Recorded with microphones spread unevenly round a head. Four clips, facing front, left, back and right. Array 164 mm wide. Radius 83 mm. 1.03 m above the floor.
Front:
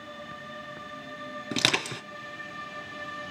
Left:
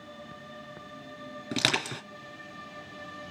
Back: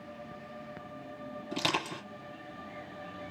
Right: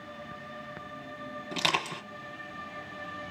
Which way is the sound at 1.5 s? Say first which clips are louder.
Even, front 3 dB; 30° left.